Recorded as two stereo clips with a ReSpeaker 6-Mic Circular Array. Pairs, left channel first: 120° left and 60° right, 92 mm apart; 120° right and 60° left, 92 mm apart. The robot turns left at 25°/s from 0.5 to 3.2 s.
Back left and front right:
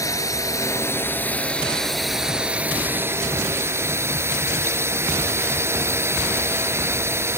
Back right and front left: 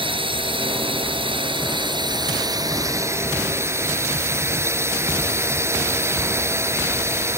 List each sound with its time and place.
0.0 s a drone: 70° left; by 7.4 s straight ahead